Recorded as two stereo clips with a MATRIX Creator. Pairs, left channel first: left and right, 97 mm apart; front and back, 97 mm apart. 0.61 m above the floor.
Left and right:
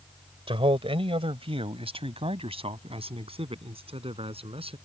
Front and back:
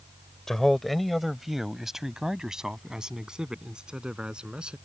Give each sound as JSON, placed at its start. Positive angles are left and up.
{"t": 0.5, "sound": "a man speaking", "azimuth_deg": -85}